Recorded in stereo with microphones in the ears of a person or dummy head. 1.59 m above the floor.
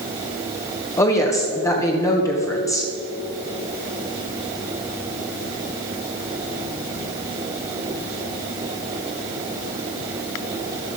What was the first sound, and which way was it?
A woman speaking, 15° left (ahead or behind).